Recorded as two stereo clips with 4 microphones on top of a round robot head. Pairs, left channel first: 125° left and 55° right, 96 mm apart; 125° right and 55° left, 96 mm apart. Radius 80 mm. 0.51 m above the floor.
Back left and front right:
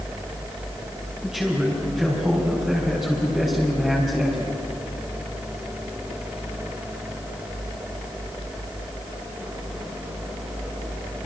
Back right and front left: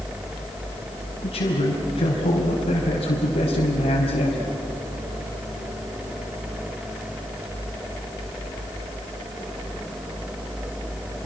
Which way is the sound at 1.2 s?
135° right.